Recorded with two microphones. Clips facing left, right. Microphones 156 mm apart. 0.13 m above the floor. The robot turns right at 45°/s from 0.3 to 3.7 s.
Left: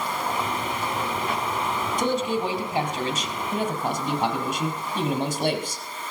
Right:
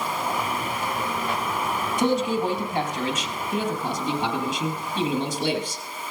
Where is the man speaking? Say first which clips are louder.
Right 3 dB; 10° right, 3.5 m; by 5.8 s 65° left, 3.5 m.